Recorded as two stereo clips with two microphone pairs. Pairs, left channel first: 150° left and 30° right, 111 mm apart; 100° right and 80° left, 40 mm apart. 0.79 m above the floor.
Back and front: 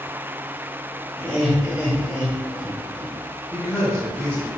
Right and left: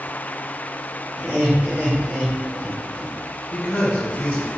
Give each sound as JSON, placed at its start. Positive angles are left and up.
{"t": 1.2, "sound": "laughter", "azimuth_deg": 45, "distance_m": 1.5}
{"t": 3.5, "sound": "a man speaking", "azimuth_deg": -130, "distance_m": 0.7}